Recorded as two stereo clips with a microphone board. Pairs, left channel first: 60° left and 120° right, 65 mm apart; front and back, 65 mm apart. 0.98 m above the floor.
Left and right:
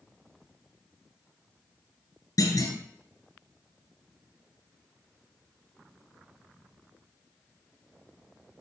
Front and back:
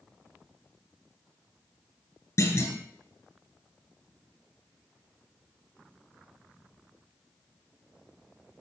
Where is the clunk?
35° left, 3 m.